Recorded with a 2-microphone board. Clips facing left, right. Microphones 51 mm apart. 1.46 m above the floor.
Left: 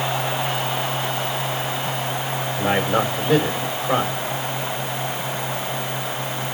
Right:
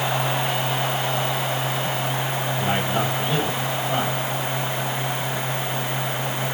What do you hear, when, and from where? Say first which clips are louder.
2.6 s a man speaking: left 5 dB; 70° left (ahead or behind), 6 m